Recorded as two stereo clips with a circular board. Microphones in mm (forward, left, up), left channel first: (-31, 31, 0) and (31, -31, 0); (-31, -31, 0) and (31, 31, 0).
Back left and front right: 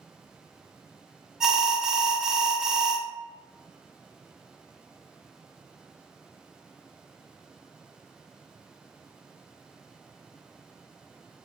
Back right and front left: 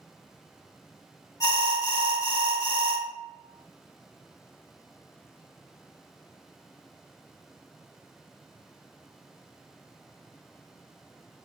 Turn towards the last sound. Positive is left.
turn(degrees=-125)